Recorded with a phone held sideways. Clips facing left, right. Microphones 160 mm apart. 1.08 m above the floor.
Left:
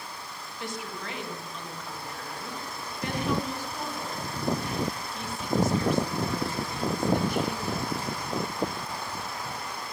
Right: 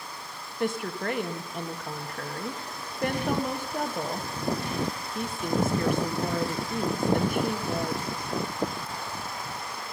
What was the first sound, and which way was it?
A woman speaking, 55° right (ahead or behind).